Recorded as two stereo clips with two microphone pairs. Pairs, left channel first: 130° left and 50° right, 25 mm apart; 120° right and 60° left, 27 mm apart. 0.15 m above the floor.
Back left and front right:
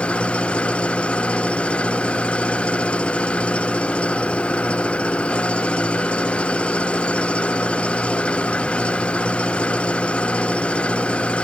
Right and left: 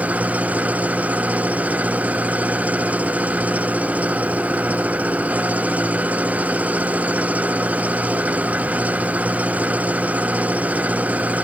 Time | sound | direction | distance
0.0 | an engine running | 85° left | ?